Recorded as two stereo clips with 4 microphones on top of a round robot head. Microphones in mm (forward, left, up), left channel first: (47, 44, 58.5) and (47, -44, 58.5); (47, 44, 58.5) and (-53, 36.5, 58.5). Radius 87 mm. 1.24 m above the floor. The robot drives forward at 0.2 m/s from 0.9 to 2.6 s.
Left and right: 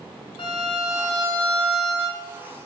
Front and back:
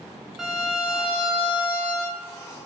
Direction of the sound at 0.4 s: 95° left.